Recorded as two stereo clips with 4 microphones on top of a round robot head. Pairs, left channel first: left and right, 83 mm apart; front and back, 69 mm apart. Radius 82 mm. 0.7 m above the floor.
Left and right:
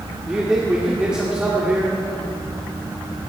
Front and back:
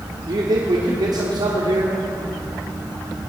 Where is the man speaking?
170° right, 1.9 m.